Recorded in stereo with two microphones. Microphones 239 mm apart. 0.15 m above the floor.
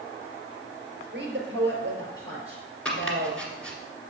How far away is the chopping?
About 1.9 m.